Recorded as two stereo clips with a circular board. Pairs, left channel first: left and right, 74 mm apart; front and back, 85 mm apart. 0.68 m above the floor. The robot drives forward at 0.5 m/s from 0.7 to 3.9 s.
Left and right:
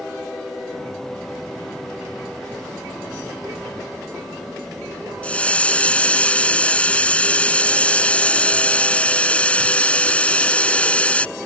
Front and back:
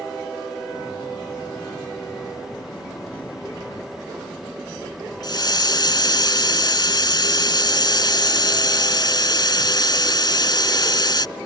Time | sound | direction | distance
5.2 | a hiss | 20° left | ?